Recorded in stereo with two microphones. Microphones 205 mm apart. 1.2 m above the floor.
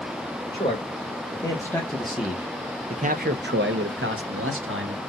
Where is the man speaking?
25° left (ahead or behind), 1.6 m; by 5.0 s 75° right (ahead or behind), 1.4 m.